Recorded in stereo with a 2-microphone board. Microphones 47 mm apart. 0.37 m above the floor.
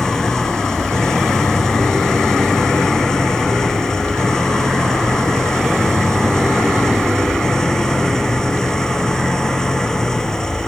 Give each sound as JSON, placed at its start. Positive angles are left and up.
{"t": 0.0, "sound": "an engine running", "side_deg": 10}